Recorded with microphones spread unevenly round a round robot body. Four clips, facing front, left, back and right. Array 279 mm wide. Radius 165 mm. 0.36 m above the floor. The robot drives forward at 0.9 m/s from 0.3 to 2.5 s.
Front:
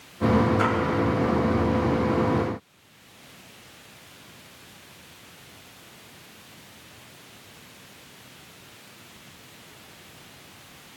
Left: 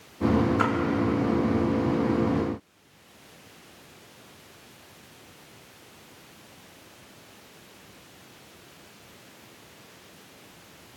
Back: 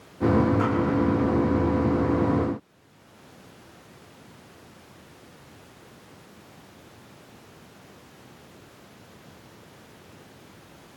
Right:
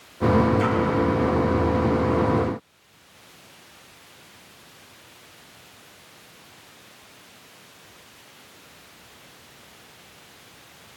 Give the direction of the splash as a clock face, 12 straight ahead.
10 o'clock.